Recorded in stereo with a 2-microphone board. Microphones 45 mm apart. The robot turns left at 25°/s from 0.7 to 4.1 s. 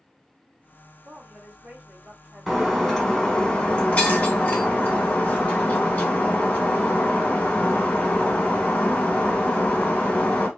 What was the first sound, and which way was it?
A woman speaking, 125° right.